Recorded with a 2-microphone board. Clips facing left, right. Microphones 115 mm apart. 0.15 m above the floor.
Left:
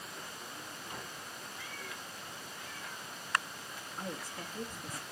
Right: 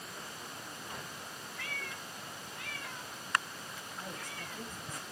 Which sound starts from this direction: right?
A cat meowing, at 1.6 s.